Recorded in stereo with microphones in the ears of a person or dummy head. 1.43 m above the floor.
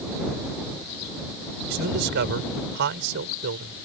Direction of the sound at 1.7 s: 65° right (ahead or behind).